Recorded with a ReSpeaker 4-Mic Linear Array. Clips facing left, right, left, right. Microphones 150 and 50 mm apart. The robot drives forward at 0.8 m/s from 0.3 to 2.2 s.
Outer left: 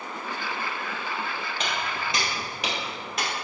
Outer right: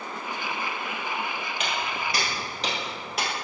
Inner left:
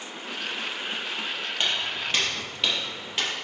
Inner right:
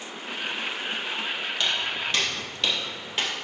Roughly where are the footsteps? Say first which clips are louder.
Outer right 1 dB, even; left.